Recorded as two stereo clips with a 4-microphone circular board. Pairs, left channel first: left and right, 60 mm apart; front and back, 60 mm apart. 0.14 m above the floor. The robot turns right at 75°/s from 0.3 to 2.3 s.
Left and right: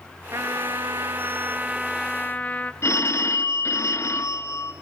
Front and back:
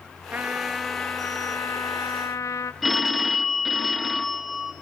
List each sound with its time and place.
0.3 s a trumpet: 120° right, 0.6 m; by 2.7 s 25° left, 0.6 m
2.8 s a phone ringing: 90° left, 0.9 m